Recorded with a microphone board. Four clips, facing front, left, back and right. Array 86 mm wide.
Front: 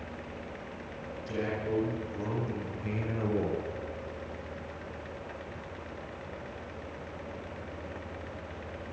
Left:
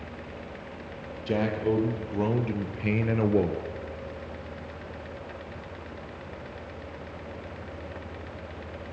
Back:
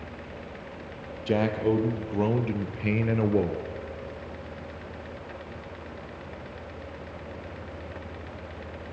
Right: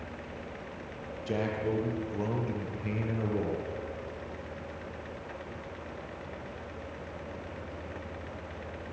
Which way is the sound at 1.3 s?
165° left.